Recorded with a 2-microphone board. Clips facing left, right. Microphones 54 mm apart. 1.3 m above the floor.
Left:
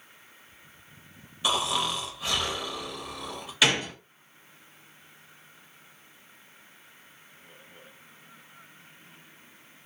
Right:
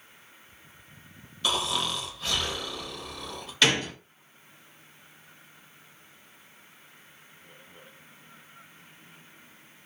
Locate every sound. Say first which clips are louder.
1.4 s snoring: left 2 dB; 15° left (ahead or behind), 0.7 m
3.6 s a gunshot: even; 5° left (ahead or behind), 0.6 m